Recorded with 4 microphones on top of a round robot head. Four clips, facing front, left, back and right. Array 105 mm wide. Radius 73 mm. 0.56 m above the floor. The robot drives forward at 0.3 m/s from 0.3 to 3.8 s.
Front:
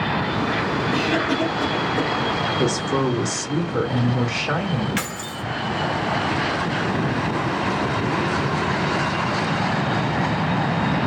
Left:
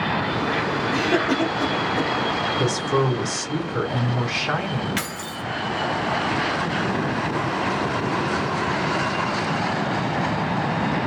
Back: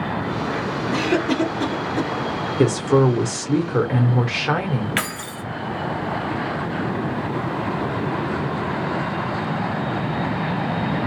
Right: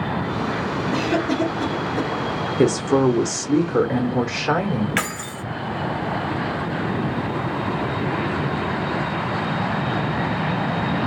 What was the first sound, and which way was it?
A cough, 175° left.